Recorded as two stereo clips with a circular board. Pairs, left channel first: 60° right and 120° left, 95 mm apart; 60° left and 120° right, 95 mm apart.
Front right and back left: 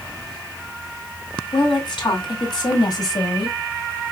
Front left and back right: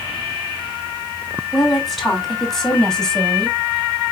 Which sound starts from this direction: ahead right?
A woman speaking, at 1.5 s.